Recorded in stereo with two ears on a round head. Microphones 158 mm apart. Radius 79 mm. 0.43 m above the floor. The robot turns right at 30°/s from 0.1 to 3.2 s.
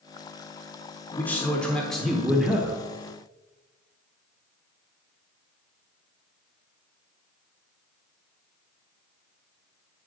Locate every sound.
1.2 s a man speaking: 10° left (ahead or behind), 1.0 m; by 2.8 s 5° right (ahead or behind), 1.0 m